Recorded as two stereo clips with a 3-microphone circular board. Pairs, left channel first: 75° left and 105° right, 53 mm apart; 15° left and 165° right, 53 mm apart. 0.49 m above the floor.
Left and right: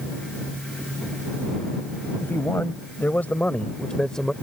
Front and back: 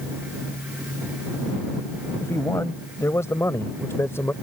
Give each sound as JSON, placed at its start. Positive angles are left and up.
{"t": 2.2, "sound": "a man speaking", "azimuth_deg": 35}